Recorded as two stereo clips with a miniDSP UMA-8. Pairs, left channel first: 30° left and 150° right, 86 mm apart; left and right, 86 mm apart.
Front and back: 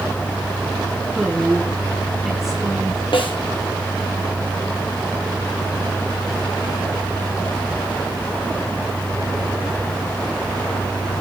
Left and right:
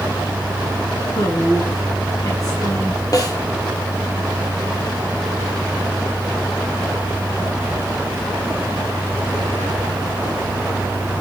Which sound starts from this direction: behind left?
A woman speaking, at 1.1 s.